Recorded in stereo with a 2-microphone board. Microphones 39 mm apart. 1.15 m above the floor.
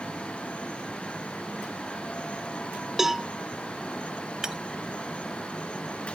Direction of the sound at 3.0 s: 10° right (ahead or behind).